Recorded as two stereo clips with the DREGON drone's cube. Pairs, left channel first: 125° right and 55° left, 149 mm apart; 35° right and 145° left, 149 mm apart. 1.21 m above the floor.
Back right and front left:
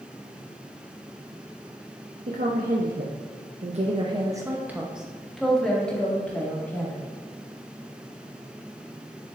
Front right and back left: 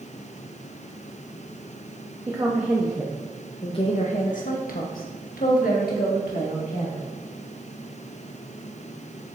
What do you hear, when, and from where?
2.3 s a woman speaking: 75° left, 1.0 m; by 7.0 s 50° right, 2 m